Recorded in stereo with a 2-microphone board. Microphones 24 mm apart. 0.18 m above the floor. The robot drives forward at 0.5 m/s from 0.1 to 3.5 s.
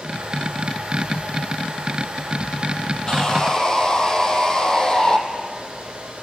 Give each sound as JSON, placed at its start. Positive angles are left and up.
{"t": 3.1, "sound": "sawing", "side_deg": 25, "distance_m": 2.5}